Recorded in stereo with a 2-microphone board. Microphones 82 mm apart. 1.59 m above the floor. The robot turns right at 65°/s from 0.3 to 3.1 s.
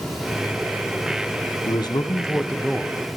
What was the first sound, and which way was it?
A man speaking, 110° left.